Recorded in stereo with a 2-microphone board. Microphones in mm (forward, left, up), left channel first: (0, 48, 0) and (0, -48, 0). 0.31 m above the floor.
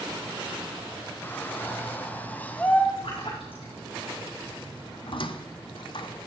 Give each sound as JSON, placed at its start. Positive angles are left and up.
{"t": 1.2, "sound": "a shout", "side_deg": 20, "distance_m": 1.2}
{"t": 3.0, "sound": "a splash", "side_deg": 70, "distance_m": 6.0}
{"t": 5.1, "sound": "a squeak", "side_deg": 60, "distance_m": 0.8}